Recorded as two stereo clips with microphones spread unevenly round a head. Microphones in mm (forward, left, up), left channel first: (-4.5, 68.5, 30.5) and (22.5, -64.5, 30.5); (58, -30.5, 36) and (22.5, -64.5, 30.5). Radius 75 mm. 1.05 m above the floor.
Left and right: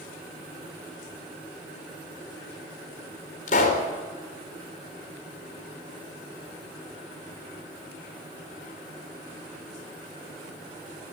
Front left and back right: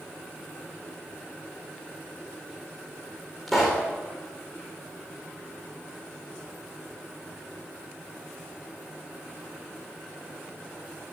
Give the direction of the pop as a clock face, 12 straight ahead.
8 o'clock.